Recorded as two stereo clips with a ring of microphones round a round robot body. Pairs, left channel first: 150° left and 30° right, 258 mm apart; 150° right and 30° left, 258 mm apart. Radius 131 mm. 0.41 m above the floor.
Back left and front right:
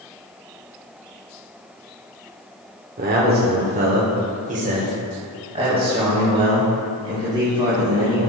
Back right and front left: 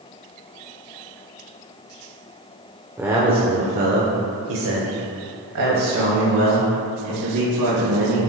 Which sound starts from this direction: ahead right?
A man speaking, at 3.0 s.